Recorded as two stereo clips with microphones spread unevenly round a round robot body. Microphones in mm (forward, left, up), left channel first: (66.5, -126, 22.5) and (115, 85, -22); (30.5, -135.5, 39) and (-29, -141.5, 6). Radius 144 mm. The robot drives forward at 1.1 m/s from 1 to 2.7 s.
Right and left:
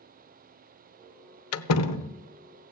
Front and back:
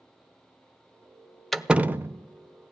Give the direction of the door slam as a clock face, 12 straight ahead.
3 o'clock.